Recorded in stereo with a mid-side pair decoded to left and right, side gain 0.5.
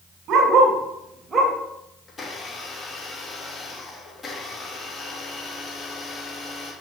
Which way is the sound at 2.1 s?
30° left.